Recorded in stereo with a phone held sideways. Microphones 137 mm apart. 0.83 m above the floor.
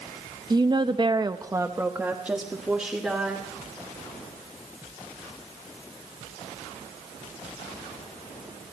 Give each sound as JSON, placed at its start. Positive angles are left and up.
{"t": 0.5, "sound": "a woman speaking", "side_deg": -30, "distance_m": 0.9}